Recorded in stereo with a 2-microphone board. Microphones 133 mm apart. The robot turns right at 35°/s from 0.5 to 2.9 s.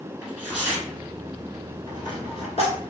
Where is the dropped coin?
30° left (ahead or behind), 1.1 m; by 2.9 s 60° left (ahead or behind), 1.1 m.